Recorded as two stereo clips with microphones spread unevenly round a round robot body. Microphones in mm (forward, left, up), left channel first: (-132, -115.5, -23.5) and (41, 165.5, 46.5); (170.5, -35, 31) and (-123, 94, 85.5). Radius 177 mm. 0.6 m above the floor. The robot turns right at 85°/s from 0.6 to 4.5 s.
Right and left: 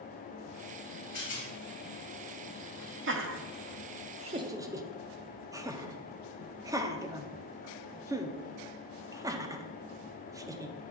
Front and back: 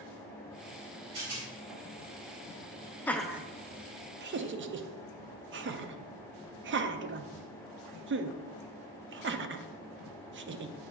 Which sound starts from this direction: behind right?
A rattle, at 1.1 s.